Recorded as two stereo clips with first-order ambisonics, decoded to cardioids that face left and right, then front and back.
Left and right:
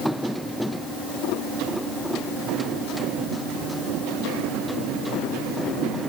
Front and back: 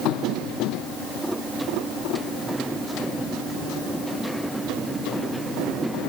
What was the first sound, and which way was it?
Only background noise.